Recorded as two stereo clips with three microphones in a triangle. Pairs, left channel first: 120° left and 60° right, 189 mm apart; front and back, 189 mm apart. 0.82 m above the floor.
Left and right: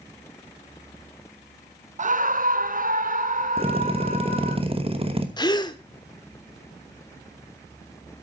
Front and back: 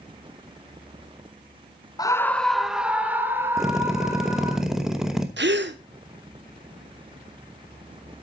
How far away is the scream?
About 0.5 m.